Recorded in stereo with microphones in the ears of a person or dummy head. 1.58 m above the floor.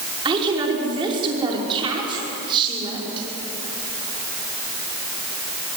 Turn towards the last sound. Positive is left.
turn(degrees=-25)  # may be behind; listen again after turning